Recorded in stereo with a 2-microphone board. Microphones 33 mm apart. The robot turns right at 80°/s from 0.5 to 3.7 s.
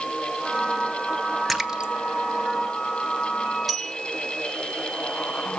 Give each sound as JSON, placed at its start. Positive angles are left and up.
{"t": 1.5, "sound": "a splash", "side_deg": 0, "distance_m": 1.2}
{"t": 3.7, "sound": "a bell", "side_deg": 0, "distance_m": 0.8}